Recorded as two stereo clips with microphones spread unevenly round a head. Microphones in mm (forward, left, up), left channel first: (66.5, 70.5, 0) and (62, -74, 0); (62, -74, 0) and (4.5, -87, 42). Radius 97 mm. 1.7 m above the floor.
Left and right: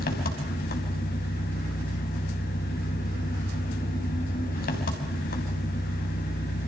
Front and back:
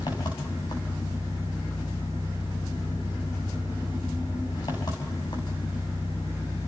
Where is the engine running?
90° left, 3.5 m.